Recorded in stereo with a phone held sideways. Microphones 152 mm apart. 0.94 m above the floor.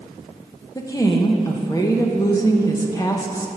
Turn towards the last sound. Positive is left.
turn(degrees=20)  # may be behind; listen again after turning